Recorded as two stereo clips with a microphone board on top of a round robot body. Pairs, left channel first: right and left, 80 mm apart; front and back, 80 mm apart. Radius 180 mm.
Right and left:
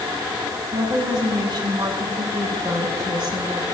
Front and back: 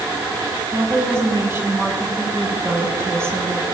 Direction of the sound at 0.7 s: 120° left.